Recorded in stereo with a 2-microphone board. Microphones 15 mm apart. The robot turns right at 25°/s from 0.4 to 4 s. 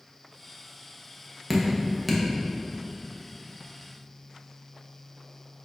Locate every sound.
1.5 s dripping: 20° right (ahead or behind), 0.7 m; by 2.2 s 5° right (ahead or behind), 0.7 m